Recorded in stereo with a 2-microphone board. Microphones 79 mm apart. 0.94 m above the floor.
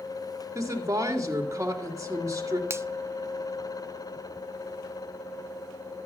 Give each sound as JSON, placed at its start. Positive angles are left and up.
{"t": 0.6, "sound": "a woman speaking", "side_deg": -40, "distance_m": 2.5}
{"t": 2.7, "sound": "a finger snap", "side_deg": -35, "distance_m": 0.6}